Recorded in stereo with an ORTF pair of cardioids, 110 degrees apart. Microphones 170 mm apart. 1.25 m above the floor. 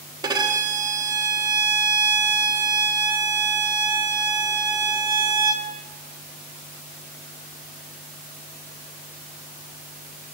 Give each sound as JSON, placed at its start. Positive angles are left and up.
{"t": 0.2, "sound": "a violin", "azimuth_deg": -25, "distance_m": 1.4}